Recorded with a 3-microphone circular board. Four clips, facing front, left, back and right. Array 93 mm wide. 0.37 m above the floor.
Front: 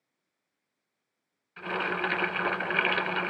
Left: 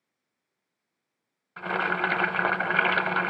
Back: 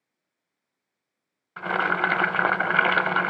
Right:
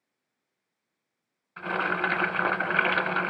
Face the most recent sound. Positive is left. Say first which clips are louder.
# left 1 dB, back 7 dB
turn(degrees=170)